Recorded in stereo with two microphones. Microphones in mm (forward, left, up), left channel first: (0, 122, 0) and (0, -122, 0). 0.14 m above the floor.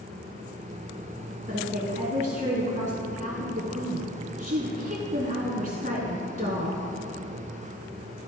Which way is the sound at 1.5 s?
35° right (ahead or behind).